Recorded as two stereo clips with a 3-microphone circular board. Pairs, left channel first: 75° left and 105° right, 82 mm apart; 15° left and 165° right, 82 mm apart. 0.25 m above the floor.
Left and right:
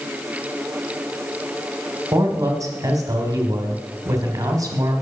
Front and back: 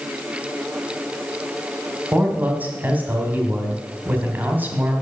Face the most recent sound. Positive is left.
turn(degrees=-105)